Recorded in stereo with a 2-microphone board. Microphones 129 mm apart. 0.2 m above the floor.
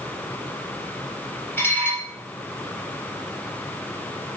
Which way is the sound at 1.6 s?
15° left (ahead or behind).